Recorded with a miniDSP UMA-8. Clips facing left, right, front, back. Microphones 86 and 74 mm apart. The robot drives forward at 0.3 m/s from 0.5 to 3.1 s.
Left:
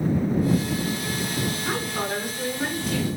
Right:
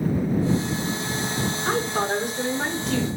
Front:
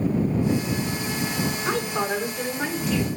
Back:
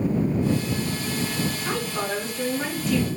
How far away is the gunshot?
I don't hear a gunshot.